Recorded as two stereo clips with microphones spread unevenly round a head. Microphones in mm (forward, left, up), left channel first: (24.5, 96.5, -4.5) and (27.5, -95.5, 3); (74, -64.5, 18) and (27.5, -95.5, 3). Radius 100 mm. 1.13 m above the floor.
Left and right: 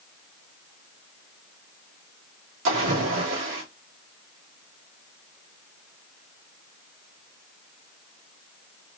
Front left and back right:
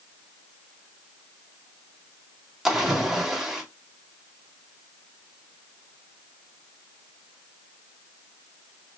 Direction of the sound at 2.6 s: 65° right.